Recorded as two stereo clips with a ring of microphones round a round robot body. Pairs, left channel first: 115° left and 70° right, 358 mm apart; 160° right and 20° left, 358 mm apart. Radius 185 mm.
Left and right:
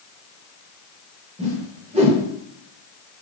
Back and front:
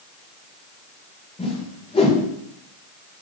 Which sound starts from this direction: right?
A whoosh, at 1.4 s.